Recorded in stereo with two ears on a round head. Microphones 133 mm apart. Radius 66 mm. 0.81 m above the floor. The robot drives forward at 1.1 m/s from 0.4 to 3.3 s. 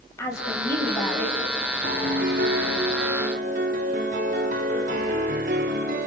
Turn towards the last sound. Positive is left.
turn(degrees=-60)  # may be behind; listen again after turning